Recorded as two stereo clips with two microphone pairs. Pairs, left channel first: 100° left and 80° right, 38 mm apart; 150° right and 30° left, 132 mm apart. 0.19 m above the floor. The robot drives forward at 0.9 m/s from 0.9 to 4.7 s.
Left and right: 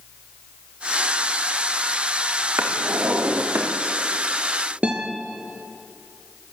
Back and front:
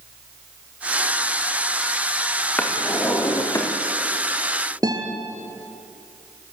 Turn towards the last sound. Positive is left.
turn(degrees=-25)